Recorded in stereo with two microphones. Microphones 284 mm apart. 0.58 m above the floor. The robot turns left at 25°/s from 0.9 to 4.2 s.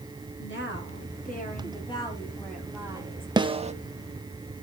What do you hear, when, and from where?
0.4 s a woman speaking: 40° left, 5 m; by 3.3 s 20° right, 5 m
3.4 s a snare drum: 15° right (ahead or behind), 0.8 m; by 3.7 s 25° right (ahead or behind), 0.8 m